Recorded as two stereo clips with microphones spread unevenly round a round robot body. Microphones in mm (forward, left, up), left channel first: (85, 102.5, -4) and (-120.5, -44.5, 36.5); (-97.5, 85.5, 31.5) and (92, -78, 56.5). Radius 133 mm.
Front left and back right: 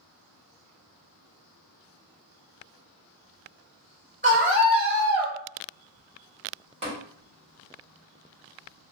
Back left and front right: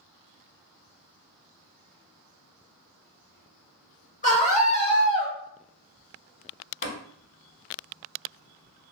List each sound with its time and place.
4.2 s a scream: 165° left, 1.8 m; by 5.3 s 135° left, 1.5 m
6.8 s tapping: 155° left, 1.9 m